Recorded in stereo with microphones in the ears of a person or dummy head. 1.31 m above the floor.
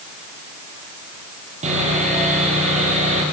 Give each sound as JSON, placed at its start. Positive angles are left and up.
{"t": 1.6, "sound": "sawing", "side_deg": -40, "distance_m": 9.0}